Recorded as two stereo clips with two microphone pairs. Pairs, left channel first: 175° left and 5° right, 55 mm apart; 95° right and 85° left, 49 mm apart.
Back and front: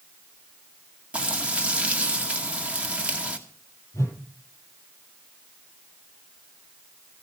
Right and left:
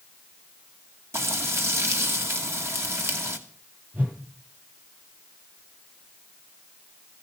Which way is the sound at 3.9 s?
140° left.